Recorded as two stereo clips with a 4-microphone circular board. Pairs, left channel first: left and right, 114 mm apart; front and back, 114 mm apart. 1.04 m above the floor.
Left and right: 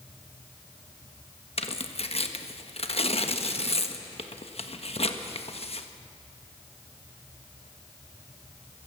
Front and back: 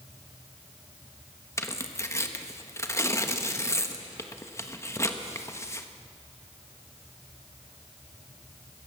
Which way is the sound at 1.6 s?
65° left.